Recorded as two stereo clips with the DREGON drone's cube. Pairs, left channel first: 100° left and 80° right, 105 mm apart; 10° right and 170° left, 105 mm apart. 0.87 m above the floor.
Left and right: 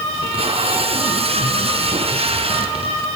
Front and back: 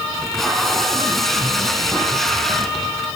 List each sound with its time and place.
0.1 s tape being pulled: 100° right, 3.5 m